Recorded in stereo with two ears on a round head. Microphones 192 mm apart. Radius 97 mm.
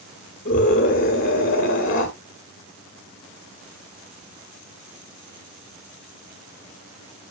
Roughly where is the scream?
Left.